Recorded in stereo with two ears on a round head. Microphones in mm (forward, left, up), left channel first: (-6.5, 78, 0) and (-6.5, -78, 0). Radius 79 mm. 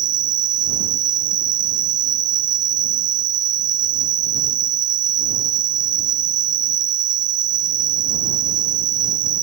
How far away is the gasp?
No gasp in this recording.